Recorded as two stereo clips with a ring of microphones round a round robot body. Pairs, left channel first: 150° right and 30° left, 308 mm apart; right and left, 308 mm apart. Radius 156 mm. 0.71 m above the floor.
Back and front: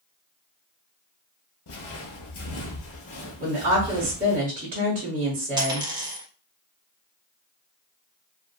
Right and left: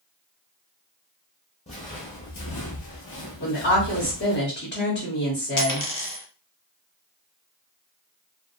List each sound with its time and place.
1.7 s footsteps: 155° right, 1.1 m; by 4.4 s 85° right, 1.6 m
3.4 s a woman speaking: 35° right, 1.3 m
5.6 s a dropped coin: 45° right, 0.9 m